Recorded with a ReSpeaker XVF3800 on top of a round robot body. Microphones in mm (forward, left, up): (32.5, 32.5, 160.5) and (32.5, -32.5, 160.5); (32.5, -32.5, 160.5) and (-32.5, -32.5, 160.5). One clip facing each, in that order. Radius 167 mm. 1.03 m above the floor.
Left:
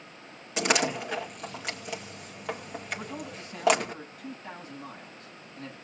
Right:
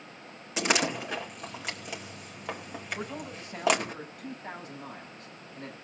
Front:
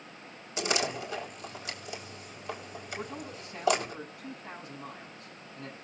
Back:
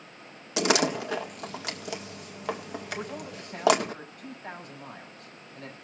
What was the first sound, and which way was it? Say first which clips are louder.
A door slam: left 1 dB, back 6 dB; straight behind.